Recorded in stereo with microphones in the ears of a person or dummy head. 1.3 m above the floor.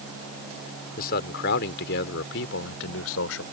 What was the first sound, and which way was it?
A man speaking, 50° left (ahead or behind).